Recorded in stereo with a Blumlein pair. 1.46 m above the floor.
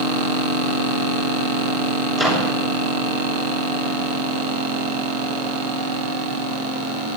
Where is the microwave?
10° right, 6.5 m.